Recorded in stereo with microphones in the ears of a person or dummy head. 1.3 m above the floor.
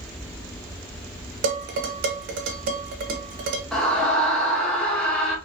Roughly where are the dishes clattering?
Right.